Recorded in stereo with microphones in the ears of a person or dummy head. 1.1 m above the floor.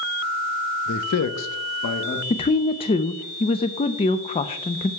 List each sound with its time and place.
0.9 s a man speaking: 55° left (ahead or behind), 0.8 m; by 2.2 s 45° left (ahead or behind), 1.4 m
2.3 s a woman speaking: 25° left (ahead or behind), 0.6 m